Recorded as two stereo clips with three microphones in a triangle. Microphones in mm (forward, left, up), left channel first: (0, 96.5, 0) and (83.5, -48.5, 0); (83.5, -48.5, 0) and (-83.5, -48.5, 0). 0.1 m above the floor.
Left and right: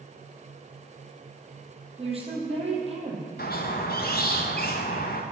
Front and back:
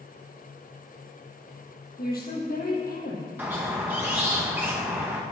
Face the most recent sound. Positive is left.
turn(degrees=100)